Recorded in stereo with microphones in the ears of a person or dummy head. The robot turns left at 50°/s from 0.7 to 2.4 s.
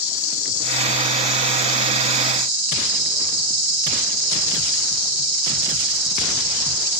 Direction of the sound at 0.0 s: 25° left.